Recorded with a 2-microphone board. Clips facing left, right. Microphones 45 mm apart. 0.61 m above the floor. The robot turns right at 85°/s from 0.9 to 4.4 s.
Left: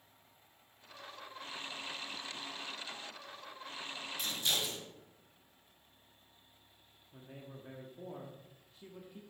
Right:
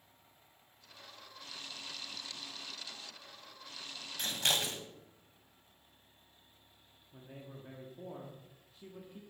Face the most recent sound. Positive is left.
turn(degrees=0)  # may be behind; listen again after turning